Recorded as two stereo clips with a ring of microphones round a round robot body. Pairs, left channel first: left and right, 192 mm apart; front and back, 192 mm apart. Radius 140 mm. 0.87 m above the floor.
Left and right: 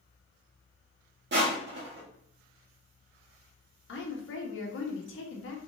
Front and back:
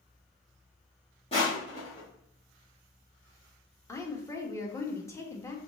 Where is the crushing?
65° right, 1.5 m.